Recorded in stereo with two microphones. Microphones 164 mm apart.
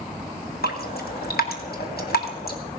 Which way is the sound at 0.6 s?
85° left.